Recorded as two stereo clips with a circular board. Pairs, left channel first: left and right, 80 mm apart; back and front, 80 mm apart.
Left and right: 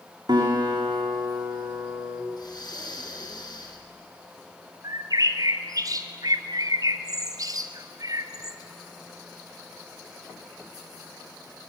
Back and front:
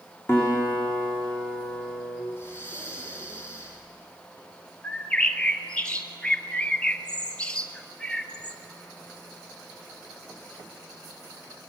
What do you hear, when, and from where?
0.3 s a guitar: 125° right, 7 m
2.3 s breathing: 125° left, 3.5 m
4.8 s a bird: 105° right, 1.7 m